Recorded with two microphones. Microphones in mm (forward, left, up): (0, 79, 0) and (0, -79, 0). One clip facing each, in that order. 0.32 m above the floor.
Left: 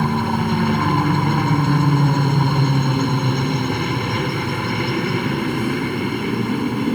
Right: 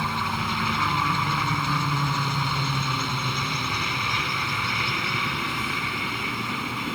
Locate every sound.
0.0 s a helicopter: 55° left (ahead or behind)